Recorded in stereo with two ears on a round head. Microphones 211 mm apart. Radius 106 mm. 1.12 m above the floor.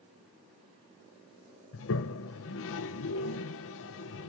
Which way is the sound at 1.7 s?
55° left (ahead or behind).